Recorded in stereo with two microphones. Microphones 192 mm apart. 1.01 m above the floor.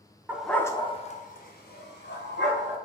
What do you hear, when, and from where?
0.3 s a dog barking: 10° right (ahead or behind), 0.5 m; by 2.8 s 60° left (ahead or behind), 1.5 m